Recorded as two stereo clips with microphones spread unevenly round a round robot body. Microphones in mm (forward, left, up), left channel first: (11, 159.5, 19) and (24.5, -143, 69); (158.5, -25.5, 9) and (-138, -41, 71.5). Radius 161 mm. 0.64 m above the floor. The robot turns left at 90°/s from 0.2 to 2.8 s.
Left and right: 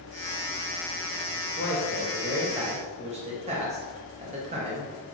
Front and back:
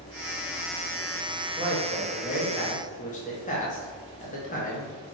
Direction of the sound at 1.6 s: 95° left.